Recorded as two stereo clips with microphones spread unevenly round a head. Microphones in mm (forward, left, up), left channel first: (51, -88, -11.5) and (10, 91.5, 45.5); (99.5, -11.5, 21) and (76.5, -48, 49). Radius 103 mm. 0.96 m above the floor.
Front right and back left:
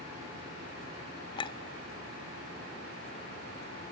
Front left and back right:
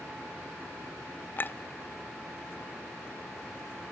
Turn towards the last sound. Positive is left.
turn(degrees=-5)